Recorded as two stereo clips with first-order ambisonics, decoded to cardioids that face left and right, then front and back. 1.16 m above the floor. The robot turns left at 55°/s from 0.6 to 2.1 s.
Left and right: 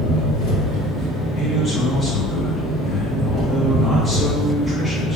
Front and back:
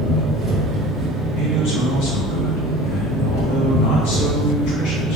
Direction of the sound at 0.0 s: 95° left.